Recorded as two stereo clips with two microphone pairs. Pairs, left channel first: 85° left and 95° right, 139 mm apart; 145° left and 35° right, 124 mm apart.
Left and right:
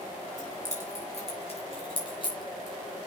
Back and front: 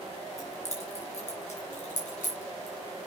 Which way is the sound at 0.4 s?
115° left.